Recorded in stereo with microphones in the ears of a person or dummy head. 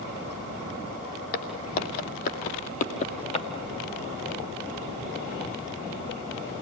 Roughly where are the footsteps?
Left.